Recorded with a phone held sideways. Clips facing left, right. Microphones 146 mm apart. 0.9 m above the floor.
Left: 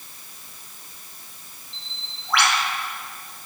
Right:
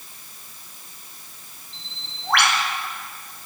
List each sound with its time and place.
1.7 s a bird: 60° right (ahead or behind), 2.5 m